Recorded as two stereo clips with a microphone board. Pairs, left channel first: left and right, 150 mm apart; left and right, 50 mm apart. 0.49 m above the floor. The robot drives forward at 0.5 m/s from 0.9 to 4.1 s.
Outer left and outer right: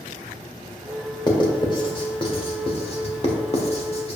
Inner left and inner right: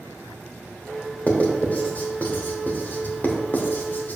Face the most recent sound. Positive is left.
turn(degrees=40)  # may be behind; listen again after turning